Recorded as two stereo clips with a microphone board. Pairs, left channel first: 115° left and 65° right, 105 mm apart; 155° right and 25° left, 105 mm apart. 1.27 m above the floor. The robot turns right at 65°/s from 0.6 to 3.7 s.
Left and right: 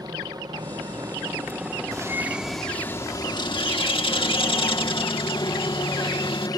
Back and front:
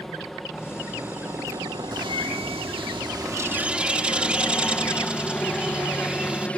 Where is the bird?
15° right; by 6.5 s 100° left.